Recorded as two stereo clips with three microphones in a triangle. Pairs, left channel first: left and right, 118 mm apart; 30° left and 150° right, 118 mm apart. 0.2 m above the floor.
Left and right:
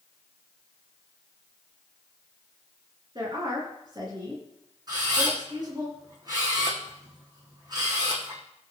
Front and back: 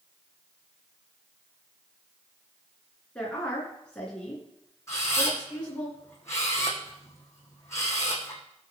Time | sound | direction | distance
3.1 | a woman speaking | 50° right | 3 m
4.9 | a camera shutter | 35° right | 3 m